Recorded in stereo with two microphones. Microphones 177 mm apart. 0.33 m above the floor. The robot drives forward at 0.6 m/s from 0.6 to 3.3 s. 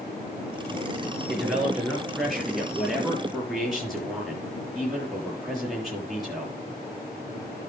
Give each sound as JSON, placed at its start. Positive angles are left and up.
{"t": 1.3, "sound": "a man speaking", "side_deg": 0, "distance_m": 5.0}